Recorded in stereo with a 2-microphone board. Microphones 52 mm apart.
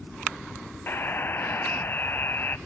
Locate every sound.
0.9 s a buzzer: 40° left (ahead or behind), 1.0 m